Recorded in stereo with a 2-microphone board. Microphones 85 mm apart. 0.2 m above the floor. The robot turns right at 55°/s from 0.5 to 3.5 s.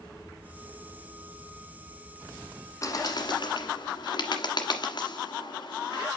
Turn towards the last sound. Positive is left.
turn(degrees=60)  # may be behind; listen again after turning